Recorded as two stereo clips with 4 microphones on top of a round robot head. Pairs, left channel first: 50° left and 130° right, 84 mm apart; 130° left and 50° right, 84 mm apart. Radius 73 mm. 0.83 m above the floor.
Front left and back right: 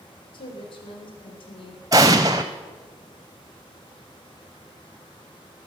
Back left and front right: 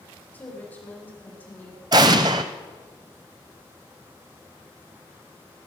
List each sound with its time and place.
0.3 s a woman speaking: 60° left, 4 m
1.9 s an explosion: 85° right, 0.7 m